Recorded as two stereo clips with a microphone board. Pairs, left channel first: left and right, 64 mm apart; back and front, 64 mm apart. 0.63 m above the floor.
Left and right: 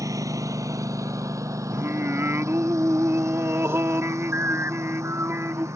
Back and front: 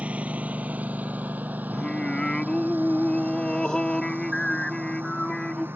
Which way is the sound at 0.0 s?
65° right.